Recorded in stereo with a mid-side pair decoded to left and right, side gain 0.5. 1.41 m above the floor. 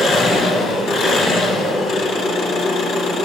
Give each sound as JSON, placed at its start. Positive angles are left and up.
{"t": 0.0, "sound": "an engine running", "azimuth_deg": 65, "distance_m": 1.8}